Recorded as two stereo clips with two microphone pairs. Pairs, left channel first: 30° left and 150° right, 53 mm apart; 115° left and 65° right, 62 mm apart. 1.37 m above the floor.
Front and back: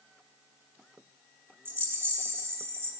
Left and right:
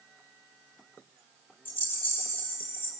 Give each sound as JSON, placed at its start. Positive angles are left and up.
{"t": 1.6, "sound": "a rattle", "azimuth_deg": 175, "distance_m": 4.0}